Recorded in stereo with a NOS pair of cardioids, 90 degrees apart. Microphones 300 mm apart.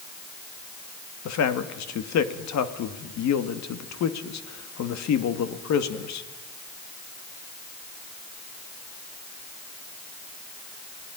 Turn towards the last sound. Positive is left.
turn(degrees=70)